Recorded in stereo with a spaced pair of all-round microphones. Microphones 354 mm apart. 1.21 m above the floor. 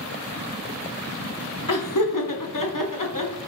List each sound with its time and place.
1.7 s laughter: 65° left (ahead or behind), 0.8 m